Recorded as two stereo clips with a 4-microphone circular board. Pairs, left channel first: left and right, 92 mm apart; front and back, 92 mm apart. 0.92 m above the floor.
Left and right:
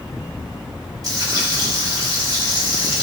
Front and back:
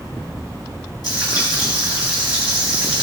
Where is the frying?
45° right, 5.5 m.